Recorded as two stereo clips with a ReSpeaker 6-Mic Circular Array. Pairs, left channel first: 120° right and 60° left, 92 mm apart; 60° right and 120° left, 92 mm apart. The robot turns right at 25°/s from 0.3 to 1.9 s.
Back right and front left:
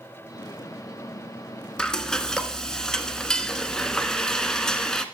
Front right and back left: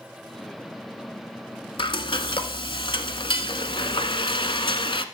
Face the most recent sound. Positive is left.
turn(degrees=-35)